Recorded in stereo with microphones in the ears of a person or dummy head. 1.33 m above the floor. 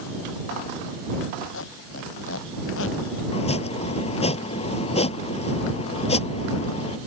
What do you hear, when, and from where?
1.5 s a squeak: 80° left
3.3 s chopping: 35° left (ahead or behind)